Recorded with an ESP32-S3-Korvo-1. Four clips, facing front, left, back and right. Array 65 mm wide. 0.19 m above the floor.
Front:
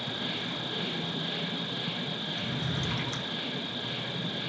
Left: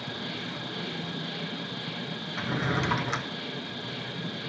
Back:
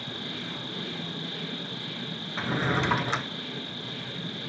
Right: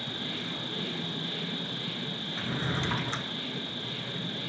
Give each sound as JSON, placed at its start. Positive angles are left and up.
{"t": 0.0, "sound": "an insect", "azimuth_deg": 15, "distance_m": 6.5}
{"t": 2.4, "sound": "a drawer", "azimuth_deg": 165, "distance_m": 1.1}